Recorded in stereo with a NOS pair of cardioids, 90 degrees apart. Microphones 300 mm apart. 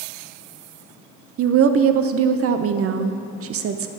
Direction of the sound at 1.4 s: 50° right.